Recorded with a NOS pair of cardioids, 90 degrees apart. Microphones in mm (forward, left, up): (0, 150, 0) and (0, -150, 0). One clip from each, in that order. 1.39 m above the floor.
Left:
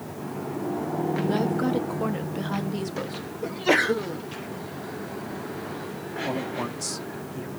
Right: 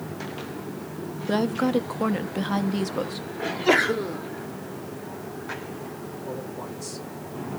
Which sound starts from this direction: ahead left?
A man speaking, at 6.2 s.